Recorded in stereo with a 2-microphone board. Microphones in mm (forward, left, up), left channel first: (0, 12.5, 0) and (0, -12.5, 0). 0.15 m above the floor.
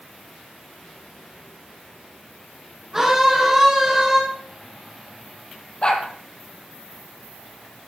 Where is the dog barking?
40° left (ahead or behind), 2.5 m.